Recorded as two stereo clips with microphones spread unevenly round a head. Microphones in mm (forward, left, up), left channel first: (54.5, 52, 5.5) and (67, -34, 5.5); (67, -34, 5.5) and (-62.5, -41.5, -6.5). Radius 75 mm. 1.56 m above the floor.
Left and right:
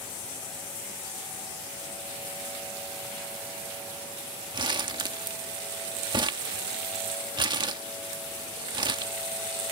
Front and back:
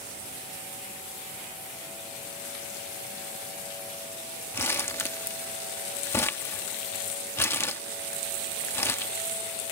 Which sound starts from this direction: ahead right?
Crumpling, at 4.5 s.